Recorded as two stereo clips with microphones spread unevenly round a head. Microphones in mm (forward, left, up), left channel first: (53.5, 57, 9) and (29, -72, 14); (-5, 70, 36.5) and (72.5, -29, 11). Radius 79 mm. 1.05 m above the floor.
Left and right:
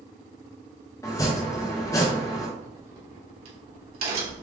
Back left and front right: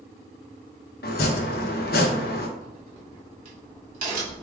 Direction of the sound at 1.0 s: 150° left.